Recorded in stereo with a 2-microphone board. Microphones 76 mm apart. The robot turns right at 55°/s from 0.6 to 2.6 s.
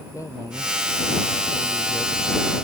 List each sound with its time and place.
0.1 s a man speaking: 45° left; by 2.5 s 150° left